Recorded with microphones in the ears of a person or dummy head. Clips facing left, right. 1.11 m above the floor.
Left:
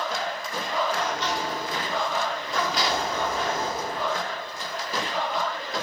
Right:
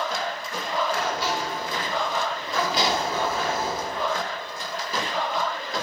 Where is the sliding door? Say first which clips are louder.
Right 1 dB; 10° right (ahead or behind), 3.5 m.